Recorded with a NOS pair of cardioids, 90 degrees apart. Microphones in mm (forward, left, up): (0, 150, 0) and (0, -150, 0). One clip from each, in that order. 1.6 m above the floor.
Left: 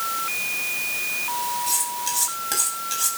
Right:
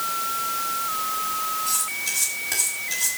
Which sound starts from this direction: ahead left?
Cutlery clinking, at 1.7 s.